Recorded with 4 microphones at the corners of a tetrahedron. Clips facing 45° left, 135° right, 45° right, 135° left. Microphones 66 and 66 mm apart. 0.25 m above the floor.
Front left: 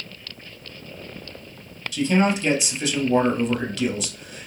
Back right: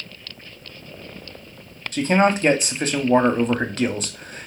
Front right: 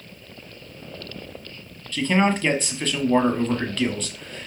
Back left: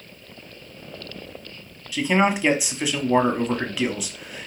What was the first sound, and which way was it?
A man speaking, 150° right.